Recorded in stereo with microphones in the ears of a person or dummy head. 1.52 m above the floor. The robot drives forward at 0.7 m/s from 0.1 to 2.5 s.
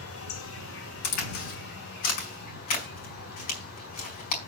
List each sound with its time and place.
0.0 s an insect: 75° left (ahead or behind), 2.5 m; by 4.5 s 50° left (ahead or behind), 3.5 m
1.0 s a crack: 50° left (ahead or behind), 4 m; by 4.4 s 40° left (ahead or behind), 4.5 m